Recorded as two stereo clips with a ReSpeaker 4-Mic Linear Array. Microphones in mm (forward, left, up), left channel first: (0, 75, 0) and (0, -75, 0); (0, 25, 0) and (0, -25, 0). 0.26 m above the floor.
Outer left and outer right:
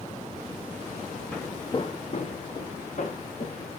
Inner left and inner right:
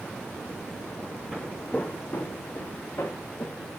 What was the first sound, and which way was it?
Footsteps, 10° left (ahead or behind).